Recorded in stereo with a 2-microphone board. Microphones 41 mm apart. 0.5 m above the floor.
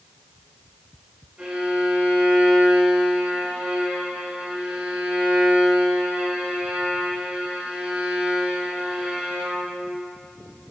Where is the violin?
30° right (ahead or behind), 2 m.